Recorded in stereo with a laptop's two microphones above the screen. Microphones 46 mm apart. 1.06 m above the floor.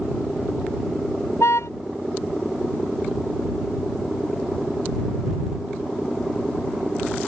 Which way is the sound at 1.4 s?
80° left.